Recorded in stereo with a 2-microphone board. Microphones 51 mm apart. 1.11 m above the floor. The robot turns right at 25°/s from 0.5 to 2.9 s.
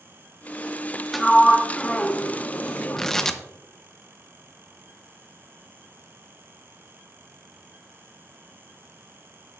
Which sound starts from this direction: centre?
Tearing paper, at 3.0 s.